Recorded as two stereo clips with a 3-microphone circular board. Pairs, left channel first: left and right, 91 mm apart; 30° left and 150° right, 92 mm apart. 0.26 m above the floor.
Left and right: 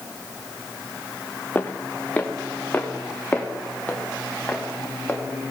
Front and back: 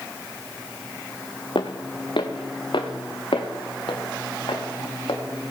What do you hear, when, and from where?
1.6 s footsteps: 20° left, 0.9 m; by 5.2 s 15° left, 3 m